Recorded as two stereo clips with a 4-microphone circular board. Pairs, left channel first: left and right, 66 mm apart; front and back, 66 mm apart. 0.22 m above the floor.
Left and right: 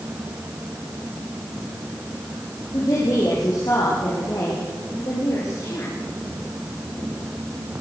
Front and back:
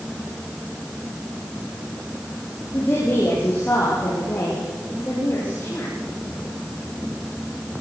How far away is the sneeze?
No sneeze in this recording.